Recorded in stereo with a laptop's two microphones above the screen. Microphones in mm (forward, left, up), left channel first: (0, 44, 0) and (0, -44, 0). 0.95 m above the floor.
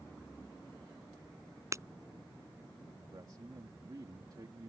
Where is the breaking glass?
35° right (ahead or behind).